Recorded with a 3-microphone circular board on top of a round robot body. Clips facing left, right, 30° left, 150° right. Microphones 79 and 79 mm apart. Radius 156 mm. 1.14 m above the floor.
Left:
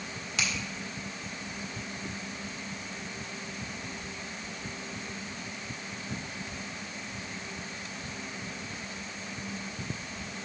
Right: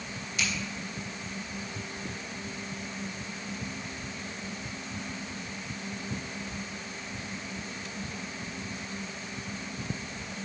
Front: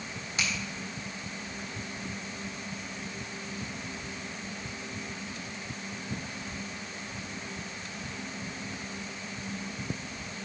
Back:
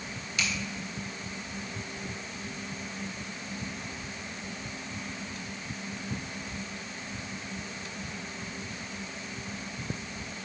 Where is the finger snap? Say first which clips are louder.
Even, even; 90° left, 1.8 m.